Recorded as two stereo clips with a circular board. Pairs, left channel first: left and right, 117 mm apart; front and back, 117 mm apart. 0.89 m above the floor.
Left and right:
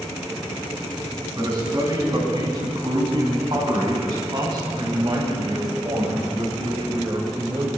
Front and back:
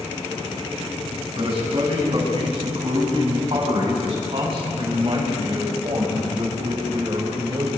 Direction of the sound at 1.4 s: 140° right.